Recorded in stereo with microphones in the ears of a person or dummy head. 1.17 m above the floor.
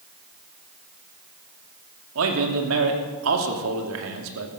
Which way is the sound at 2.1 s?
80° right.